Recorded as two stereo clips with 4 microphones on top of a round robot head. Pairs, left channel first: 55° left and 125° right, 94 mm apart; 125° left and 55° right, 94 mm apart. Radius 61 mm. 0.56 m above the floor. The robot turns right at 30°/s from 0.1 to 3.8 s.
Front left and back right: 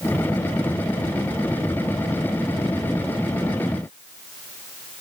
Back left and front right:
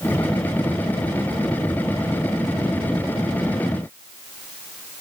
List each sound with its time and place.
Only background noise.